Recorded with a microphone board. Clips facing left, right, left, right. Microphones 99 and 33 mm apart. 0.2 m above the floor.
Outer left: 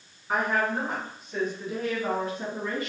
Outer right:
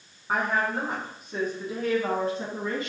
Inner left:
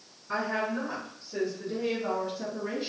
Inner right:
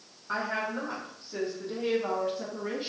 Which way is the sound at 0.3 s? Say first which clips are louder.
Even, inner left 1 dB; 40° right (ahead or behind).